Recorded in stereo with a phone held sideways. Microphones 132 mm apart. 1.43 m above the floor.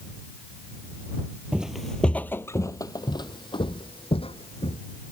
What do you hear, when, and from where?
1.5 s footsteps: 10° right (ahead or behind); by 4.8 s 50° left (ahead or behind)